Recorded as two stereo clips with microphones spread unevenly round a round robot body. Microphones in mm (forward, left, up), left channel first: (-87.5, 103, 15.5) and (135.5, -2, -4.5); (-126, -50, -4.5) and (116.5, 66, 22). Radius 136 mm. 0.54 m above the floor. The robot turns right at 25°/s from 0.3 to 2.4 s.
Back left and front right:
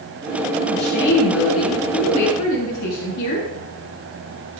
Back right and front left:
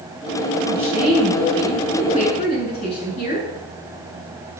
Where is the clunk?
I don't hear a clunk.